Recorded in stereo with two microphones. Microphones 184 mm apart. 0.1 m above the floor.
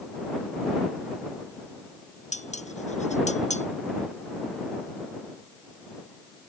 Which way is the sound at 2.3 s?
40° left (ahead or behind).